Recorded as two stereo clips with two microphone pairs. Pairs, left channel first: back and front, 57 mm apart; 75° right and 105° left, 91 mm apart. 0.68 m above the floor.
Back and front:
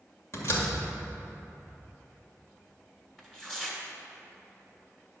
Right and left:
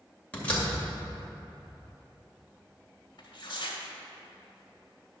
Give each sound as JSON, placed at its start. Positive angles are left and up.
{"t": 0.3, "sound": "a door slam", "azimuth_deg": -150, "distance_m": 2.0}
{"t": 3.2, "sound": "tearing paper", "azimuth_deg": -100, "distance_m": 1.6}